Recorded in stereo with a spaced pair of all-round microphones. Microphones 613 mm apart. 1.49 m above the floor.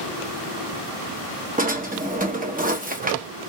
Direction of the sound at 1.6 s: 15° right (ahead or behind).